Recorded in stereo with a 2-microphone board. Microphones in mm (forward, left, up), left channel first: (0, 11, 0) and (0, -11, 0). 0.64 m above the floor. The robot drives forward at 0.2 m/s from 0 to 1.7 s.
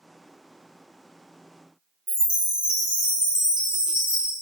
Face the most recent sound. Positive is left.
turn(degrees=-45)  # may be behind; listen again after turning